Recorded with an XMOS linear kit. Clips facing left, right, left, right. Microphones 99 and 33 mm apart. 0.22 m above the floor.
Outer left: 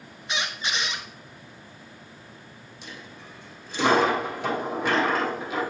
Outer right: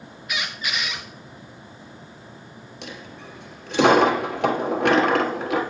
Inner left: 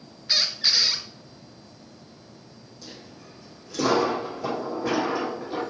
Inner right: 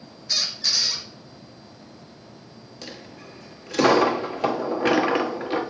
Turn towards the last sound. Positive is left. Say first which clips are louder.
# outer right 5 dB, inner right 5 dB
turn(degrees=-65)  # may be behind; listen again after turning